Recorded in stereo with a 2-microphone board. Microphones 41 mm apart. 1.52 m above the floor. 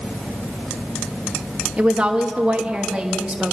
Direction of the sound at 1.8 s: 20° right (ahead or behind).